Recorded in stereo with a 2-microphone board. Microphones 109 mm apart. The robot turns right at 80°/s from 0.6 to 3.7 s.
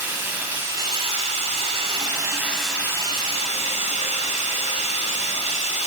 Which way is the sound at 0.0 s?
165° right.